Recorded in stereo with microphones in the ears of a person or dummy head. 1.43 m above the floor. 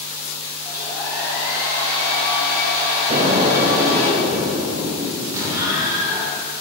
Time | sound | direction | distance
0.7 | a hair dryer | 15° right (ahead or behind) | 2.5 m
3.1 | an explosion | 35° right (ahead or behind) | 0.7 m
5.3 | an explosion | 20° right (ahead or behind) | 1.5 m